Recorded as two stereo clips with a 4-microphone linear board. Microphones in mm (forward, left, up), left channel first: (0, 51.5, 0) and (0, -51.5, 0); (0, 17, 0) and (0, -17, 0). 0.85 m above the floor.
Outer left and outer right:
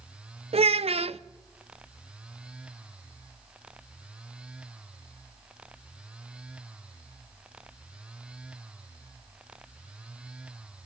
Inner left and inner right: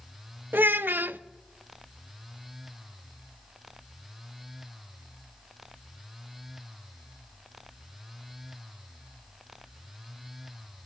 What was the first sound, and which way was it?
A child speaking, 75° right (ahead or behind).